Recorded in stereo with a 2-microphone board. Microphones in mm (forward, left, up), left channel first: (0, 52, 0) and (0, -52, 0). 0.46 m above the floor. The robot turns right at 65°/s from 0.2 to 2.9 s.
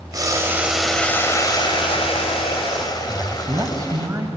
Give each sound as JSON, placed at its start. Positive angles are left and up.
{"t": 0.1, "sound": "boiling", "azimuth_deg": -40, "distance_m": 2.5}
{"t": 3.1, "sound": "a man speaking", "side_deg": -30, "distance_m": 2.5}